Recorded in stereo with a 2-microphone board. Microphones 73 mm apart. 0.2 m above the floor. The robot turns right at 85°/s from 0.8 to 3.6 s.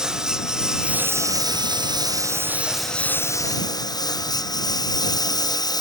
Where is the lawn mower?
170° right; by 5.8 s 65° left.